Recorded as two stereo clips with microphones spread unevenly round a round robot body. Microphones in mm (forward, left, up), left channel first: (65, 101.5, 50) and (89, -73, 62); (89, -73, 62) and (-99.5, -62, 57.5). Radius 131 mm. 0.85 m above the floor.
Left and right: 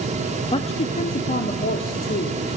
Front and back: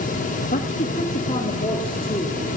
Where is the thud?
No thud in this recording.